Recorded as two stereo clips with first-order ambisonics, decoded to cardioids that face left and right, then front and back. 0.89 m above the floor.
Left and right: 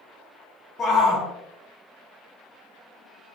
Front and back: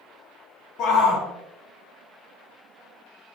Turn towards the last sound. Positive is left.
turn(degrees=30)